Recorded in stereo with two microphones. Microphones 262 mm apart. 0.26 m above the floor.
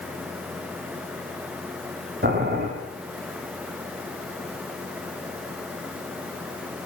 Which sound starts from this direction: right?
Boiling, at 2.2 s.